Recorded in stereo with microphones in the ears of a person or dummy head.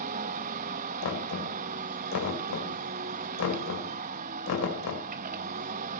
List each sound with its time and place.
0.0 s a machine running: 45° right (ahead or behind), 1.0 m
1.0 s knocking: 85° left, 4 m